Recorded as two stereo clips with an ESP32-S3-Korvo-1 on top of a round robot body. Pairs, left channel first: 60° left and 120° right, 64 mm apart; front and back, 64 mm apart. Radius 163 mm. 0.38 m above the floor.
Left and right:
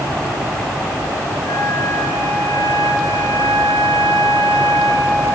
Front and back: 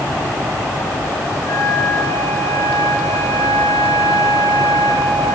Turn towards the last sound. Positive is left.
turn(degrees=30)